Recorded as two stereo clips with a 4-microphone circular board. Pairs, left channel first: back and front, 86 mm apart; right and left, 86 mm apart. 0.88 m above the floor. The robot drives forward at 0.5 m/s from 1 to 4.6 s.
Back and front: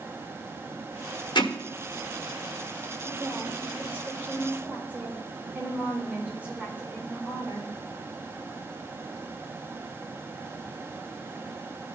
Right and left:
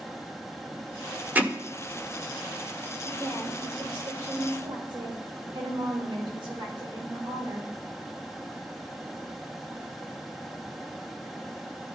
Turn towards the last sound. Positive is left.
turn(degrees=70)